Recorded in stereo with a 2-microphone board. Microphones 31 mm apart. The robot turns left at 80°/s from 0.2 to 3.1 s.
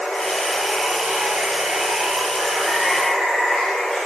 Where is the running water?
45° left, 0.9 m; by 4.1 s 175° left, 0.9 m.